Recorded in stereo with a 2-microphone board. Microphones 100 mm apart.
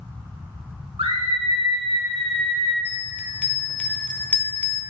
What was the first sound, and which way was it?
A scream, 70° right (ahead or behind).